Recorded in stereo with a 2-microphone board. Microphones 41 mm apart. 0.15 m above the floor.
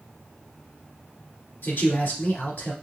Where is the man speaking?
55° left (ahead or behind), 2 m.